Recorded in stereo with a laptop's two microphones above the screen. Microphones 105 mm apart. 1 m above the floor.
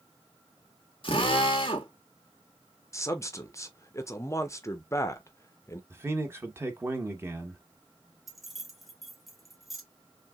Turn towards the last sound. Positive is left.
turn(degrees=0)  # may be behind; listen again after turning